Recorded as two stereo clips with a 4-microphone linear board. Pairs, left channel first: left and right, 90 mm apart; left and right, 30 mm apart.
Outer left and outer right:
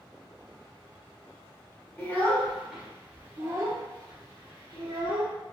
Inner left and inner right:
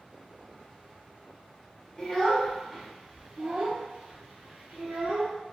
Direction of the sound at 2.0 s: 25° left (ahead or behind).